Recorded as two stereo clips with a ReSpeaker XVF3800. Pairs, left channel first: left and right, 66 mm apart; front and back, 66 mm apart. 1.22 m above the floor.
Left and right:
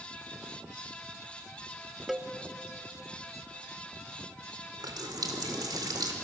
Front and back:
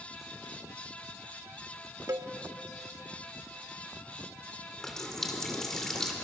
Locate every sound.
2.1 s a cowbell: straight behind, 1.0 m
4.8 s a running tap: 85° right, 2 m